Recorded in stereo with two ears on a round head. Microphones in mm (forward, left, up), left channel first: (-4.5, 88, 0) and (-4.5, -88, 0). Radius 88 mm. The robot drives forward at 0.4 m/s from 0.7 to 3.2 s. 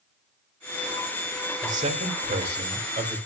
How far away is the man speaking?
About 1.7 m.